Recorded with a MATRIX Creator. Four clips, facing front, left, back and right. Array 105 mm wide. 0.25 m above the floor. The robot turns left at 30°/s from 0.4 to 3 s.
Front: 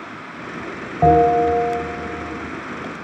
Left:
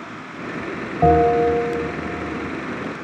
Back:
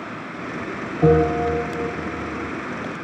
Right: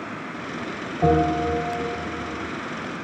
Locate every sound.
1.0 s a bell: 20° left, 1.6 m; by 1.8 s 5° right, 1.6 m